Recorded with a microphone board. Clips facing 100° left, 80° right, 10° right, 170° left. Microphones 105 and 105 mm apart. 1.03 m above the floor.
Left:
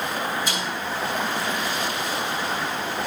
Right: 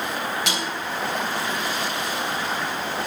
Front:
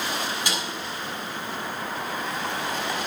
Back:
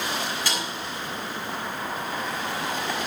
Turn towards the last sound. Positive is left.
turn(degrees=-85)